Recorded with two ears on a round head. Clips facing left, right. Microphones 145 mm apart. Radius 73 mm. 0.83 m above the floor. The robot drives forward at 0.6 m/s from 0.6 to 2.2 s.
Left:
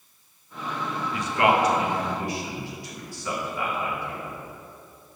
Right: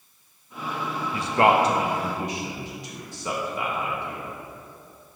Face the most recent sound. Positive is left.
turn(degrees=-20)  # may be behind; listen again after turning